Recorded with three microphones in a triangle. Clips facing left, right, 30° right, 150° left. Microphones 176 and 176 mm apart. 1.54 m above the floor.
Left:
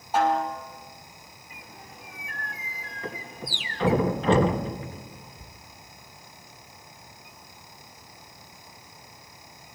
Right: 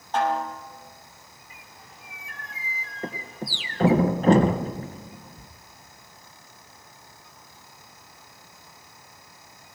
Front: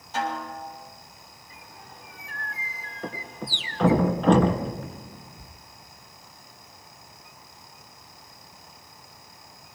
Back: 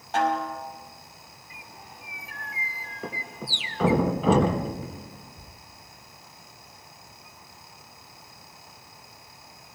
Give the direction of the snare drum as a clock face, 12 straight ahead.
6 o'clock.